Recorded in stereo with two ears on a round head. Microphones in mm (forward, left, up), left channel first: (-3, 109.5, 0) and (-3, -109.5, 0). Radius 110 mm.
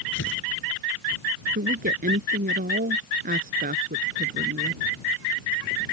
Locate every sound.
0.1 s tearing paper: 50° left (ahead or behind)
1.6 s a woman speaking: 35° right (ahead or behind)